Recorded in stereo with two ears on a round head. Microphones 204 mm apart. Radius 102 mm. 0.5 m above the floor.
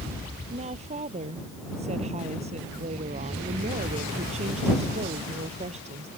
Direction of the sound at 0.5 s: 30° right (ahead or behind).